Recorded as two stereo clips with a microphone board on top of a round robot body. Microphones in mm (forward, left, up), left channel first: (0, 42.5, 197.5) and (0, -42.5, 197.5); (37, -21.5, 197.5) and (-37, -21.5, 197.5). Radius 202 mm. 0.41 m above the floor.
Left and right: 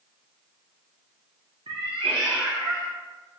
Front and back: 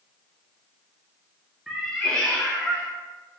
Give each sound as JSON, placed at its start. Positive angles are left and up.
{"t": 1.7, "sound": "a cat meowing", "azimuth_deg": -95, "distance_m": 0.6}